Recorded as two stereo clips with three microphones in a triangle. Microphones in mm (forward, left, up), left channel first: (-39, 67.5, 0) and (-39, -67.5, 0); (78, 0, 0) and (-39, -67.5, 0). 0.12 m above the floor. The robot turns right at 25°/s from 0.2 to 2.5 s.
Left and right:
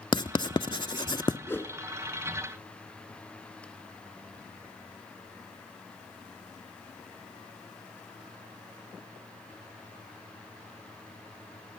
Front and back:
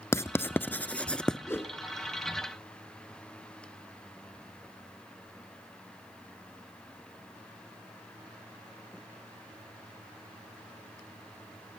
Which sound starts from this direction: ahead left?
A whoosh, at 1.5 s.